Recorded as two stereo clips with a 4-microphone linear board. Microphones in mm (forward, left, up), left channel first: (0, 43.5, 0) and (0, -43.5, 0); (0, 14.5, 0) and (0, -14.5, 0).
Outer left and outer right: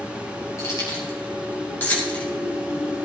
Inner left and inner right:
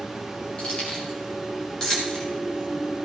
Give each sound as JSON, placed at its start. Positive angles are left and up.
{"t": 0.6, "sound": "keys jangling", "side_deg": 35, "distance_m": 4.5}